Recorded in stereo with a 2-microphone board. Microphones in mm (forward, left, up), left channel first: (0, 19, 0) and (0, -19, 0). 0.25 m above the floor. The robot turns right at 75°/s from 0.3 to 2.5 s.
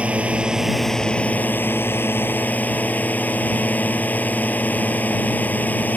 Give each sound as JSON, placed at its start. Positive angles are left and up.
{"t": 0.0, "sound": "a drone", "azimuth_deg": -35}